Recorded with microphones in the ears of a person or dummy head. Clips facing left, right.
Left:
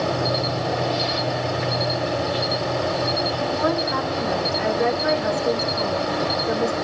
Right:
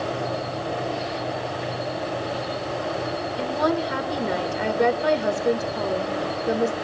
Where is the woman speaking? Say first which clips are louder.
Right 2 dB; 45° right (ahead or behind), 1.5 m.